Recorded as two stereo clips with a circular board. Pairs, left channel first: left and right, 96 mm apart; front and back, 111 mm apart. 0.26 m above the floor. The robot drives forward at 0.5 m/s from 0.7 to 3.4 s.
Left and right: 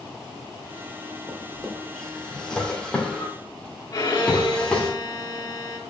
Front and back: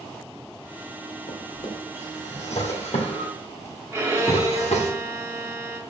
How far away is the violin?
About 2 m.